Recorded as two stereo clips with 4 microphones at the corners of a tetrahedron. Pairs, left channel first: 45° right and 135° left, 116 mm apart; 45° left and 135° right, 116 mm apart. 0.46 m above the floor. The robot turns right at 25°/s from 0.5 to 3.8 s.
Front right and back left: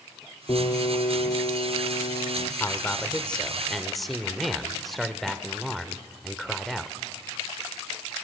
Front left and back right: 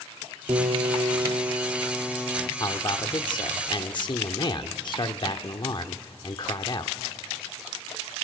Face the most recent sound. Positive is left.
turn(degrees=40)